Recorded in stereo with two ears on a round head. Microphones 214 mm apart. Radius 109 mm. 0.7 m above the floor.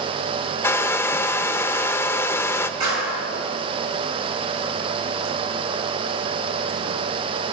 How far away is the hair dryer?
About 0.5 m.